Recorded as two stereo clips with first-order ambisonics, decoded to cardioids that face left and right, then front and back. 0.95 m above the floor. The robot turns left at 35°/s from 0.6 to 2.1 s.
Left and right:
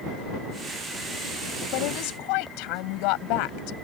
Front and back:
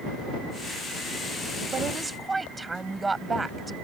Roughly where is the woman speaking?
Behind left.